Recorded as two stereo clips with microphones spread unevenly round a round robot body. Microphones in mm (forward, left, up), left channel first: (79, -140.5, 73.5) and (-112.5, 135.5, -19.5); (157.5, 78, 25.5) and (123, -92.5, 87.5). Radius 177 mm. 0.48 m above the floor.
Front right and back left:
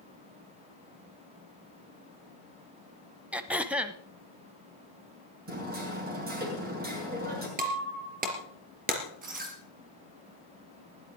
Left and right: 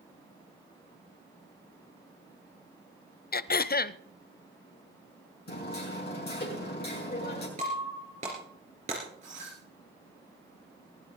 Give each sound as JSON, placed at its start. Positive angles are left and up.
{"t": 3.3, "sound": "throat clearing", "azimuth_deg": 35, "distance_m": 0.7}
{"t": 5.5, "sound": "hammering", "azimuth_deg": 65, "distance_m": 5.5}
{"t": 7.6, "sound": "breaking glass", "azimuth_deg": -170, "distance_m": 3.5}